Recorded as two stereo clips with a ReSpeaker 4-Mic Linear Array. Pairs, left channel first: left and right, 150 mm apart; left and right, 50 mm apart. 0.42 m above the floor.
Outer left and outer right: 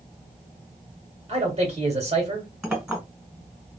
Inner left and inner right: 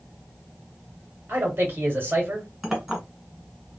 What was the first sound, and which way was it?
A man speaking, 40° right (ahead or behind).